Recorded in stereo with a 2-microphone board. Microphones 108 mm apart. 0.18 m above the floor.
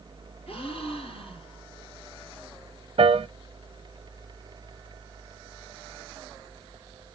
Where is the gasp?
60° left (ahead or behind), 4 m.